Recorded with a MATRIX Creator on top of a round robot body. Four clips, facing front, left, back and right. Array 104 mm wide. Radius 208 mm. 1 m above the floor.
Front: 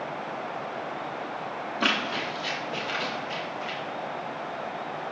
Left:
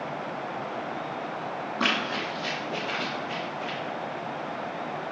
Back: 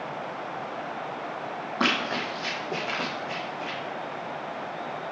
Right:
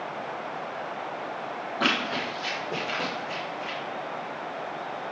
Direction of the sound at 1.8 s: 165° left.